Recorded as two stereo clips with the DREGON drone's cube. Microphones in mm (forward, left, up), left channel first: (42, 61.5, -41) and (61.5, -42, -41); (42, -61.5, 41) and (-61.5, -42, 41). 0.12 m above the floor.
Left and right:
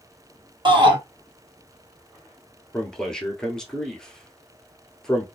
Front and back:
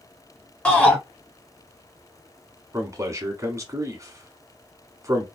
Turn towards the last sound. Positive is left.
turn(degrees=175)